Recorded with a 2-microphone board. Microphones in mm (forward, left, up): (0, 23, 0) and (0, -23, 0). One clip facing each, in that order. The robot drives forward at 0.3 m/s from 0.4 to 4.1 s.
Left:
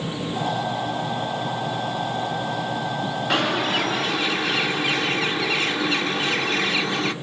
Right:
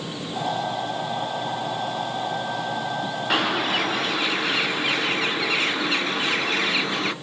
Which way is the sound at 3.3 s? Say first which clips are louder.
Even; 5° right (ahead or behind).